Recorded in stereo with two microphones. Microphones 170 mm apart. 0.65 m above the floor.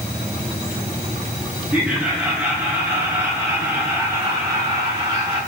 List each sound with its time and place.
1.7 s laughter: 5° right (ahead or behind), 9 m; by 5.4 s 25° right (ahead or behind), 9.5 m